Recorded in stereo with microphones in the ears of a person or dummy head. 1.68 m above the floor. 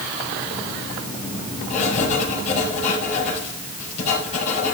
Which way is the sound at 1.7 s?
45° left (ahead or behind).